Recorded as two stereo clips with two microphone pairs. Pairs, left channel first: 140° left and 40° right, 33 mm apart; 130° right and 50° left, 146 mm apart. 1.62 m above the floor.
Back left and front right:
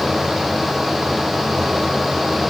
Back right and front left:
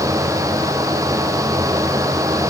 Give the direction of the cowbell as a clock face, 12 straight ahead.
No cowbell in this recording.